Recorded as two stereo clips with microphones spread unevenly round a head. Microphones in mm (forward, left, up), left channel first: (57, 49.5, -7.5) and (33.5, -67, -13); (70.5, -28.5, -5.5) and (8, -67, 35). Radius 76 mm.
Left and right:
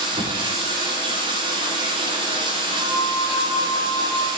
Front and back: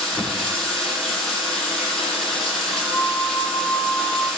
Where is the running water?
55° right, 9 m.